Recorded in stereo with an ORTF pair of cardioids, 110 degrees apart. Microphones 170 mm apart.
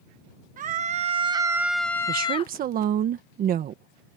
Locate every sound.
0.6 s a scream: 50° right; by 2.5 s 40° left
2.1 s a woman speaking: 60° right